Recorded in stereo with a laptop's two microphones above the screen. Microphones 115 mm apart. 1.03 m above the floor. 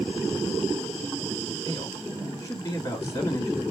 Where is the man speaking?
30° left (ahead or behind), 2 m.